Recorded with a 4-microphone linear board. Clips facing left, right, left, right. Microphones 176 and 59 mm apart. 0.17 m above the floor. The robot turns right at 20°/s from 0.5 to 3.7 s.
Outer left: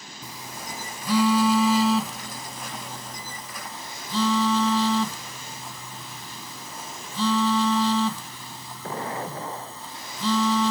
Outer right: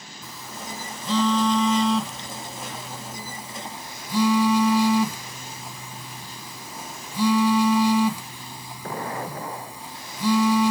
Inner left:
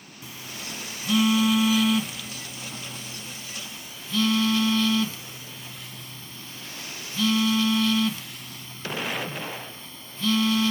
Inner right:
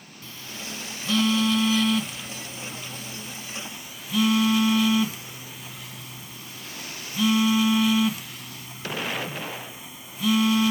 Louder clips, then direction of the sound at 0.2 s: Outer right 1 dB, even; 15° left (ahead or behind).